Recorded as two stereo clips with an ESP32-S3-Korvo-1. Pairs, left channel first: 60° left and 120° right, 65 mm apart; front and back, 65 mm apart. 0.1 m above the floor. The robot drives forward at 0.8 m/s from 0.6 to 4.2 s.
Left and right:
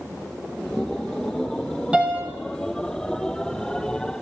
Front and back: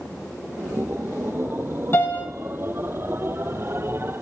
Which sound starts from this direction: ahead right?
A piano, at 1.9 s.